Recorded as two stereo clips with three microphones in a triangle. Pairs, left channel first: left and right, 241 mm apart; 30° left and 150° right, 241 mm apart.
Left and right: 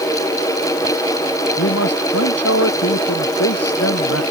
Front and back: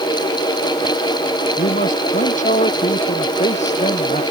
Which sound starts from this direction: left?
A man speaking, at 1.6 s.